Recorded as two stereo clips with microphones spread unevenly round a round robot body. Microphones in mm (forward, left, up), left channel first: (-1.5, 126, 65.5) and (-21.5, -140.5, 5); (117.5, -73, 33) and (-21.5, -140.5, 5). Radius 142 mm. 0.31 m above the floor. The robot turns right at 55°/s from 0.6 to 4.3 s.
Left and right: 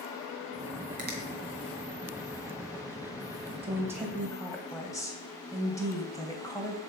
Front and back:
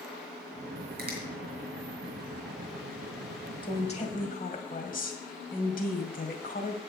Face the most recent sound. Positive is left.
turn(degrees=0)